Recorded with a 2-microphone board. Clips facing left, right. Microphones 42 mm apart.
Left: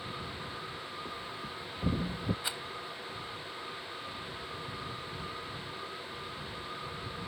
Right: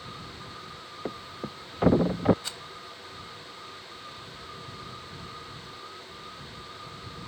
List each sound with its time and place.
1.1 s a thud: 70° right (ahead or behind)
2.4 s a rattle: 15° left (ahead or behind)